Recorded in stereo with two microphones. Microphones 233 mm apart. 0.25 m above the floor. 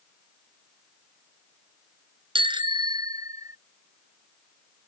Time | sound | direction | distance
2.4 | a bicycle bell | 25° right (ahead or behind) | ?